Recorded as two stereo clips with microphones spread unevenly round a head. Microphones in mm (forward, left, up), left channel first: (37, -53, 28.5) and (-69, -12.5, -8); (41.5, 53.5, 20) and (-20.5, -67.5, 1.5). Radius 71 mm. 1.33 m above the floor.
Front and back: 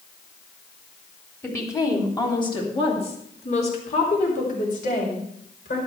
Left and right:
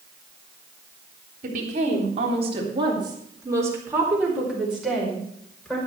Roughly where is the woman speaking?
Right.